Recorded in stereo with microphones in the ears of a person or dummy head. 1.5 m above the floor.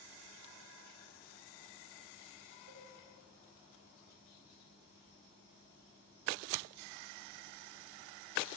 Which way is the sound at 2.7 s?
60° right (ahead or behind).